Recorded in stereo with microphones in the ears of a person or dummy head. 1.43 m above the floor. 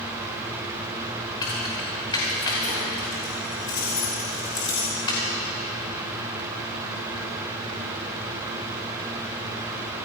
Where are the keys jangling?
20° left (ahead or behind), 3.5 m.